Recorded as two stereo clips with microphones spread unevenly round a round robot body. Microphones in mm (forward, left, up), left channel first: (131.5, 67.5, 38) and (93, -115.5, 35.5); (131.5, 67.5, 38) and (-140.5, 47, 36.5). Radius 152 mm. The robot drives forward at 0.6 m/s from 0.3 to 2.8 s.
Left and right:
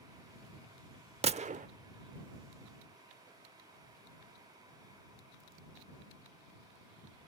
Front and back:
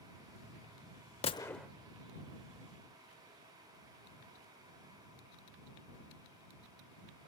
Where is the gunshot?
55° right, 0.6 m; by 1.7 s 90° right, 0.6 m.